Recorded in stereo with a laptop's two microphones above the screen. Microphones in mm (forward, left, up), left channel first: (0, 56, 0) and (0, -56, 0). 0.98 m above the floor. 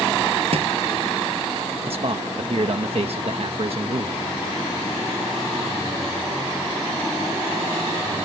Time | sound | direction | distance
0.5 | a thud | 60° right (ahead or behind) | ?
1.9 | a man speaking | 60° right (ahead or behind) | ?